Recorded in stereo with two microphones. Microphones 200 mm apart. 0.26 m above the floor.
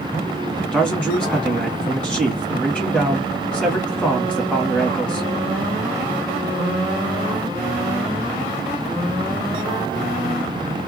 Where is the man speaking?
5° left (ahead or behind), 1.6 m.